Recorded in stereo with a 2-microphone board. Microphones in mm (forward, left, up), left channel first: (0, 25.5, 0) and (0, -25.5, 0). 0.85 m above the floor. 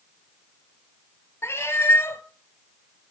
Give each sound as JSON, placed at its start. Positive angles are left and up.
{"t": 1.4, "sound": "a cat meowing", "side_deg": 60, "distance_m": 1.1}